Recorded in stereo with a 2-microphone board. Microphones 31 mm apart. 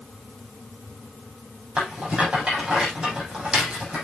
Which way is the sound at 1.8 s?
30° right (ahead or behind).